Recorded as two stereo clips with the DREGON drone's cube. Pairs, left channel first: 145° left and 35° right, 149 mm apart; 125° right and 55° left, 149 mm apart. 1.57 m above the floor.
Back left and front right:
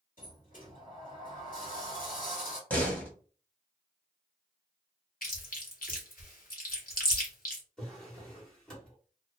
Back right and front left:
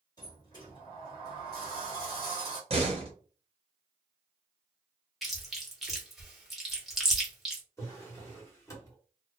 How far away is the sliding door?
About 1.4 m.